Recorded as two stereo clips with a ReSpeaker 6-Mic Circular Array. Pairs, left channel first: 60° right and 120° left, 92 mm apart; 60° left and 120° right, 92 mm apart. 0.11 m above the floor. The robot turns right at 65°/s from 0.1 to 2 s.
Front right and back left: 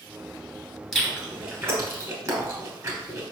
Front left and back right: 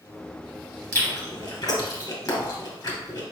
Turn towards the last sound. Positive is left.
turn(degrees=90)